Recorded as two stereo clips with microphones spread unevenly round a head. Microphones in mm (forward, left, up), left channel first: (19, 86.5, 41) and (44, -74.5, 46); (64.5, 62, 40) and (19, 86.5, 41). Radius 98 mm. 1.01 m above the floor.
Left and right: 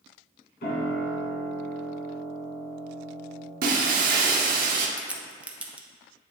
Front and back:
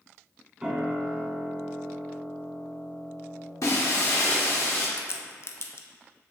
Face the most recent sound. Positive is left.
turn(degrees=0)